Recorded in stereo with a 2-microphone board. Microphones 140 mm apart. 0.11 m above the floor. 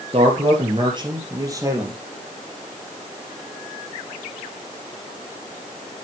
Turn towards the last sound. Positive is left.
turn(degrees=-20)  # may be behind; listen again after turning